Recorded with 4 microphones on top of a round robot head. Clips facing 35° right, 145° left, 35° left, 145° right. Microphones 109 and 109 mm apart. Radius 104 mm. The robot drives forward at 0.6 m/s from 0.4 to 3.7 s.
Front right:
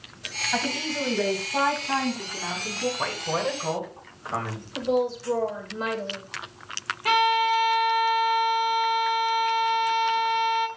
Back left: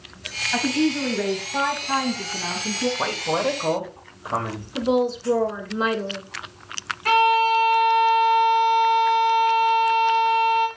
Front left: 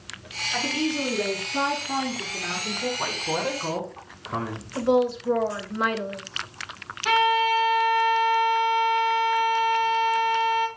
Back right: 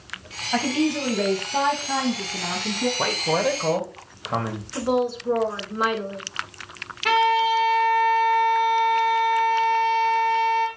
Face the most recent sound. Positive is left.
turn(degrees=-110)